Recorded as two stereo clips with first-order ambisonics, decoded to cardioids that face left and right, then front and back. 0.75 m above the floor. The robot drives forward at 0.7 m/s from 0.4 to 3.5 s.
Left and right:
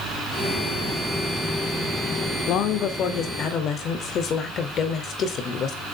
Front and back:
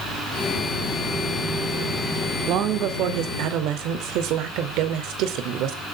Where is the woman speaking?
135° left, 2.0 m; by 5.8 s 145° left, 2.5 m.